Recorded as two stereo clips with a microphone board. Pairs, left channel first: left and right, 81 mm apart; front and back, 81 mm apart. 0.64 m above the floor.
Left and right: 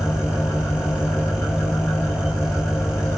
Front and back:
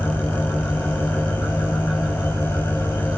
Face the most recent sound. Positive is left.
turn(degrees=35)